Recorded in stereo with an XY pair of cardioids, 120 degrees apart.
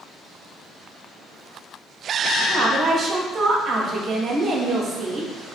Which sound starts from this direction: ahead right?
A woman speaking, at 2.5 s.